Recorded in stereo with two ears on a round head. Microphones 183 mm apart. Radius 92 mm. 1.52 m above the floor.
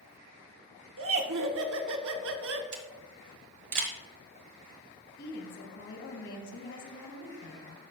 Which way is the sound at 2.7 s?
35° right (ahead or behind).